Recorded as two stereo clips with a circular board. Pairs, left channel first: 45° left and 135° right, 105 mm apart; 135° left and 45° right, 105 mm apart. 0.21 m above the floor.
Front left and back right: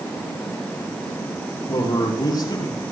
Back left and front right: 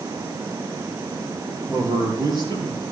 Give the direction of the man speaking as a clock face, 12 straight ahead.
12 o'clock.